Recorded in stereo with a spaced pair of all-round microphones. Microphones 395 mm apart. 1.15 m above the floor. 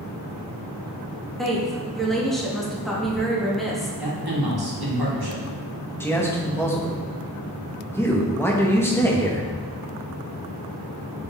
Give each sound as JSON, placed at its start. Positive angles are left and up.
{"t": 1.4, "sound": "a woman speaking", "side_deg": 0, "distance_m": 1.4}
{"t": 4.0, "sound": "a man speaking", "side_deg": -65, "distance_m": 1.6}
{"t": 6.0, "sound": "a man speaking", "side_deg": 5, "distance_m": 1.2}